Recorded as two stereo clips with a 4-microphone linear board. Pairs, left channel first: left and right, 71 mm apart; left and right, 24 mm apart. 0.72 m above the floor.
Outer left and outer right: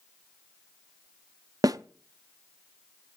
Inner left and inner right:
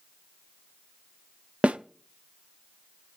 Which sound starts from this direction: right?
A snare drum, at 1.6 s.